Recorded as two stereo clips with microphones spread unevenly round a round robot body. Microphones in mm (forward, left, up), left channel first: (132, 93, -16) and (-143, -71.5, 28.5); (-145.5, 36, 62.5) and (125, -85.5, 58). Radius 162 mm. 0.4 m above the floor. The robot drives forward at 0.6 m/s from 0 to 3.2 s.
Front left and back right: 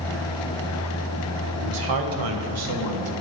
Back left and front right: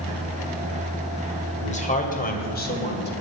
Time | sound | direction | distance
1.6 | a man speaking | 140° right | 2.5 m